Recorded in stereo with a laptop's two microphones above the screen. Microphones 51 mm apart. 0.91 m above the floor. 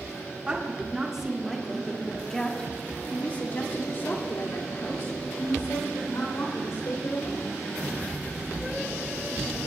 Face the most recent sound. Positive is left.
turn(degrees=75)  # may be behind; listen again after turning